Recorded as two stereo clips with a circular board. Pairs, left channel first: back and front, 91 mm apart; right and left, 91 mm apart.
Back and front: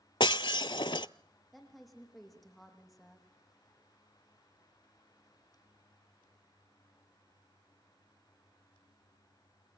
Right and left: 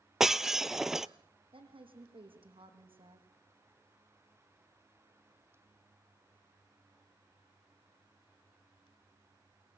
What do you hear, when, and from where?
0.2 s breaking glass: 175° left, 0.5 m
1.5 s a woman speaking: 90° left, 5 m